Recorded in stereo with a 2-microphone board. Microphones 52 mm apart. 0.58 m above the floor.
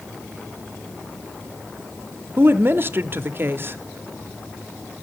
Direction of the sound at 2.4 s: 40° right (ahead or behind).